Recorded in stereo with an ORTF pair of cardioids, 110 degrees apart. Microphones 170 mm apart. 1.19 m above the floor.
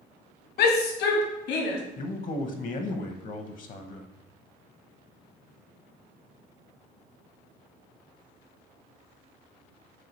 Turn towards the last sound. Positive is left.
turn(degrees=45)